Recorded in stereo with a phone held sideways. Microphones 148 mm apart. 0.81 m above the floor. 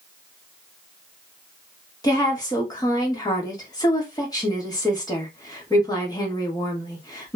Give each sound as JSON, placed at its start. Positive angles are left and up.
{"t": 2.0, "sound": "a woman speaking", "side_deg": 25, "distance_m": 1.1}